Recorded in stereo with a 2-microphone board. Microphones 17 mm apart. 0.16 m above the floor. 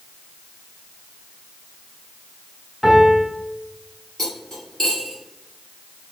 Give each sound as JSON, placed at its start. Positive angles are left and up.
{"t": 2.8, "sound": "a piano", "side_deg": 5, "distance_m": 1.4}
{"t": 4.2, "sound": "cutlery clinking", "side_deg": 30, "distance_m": 1.6}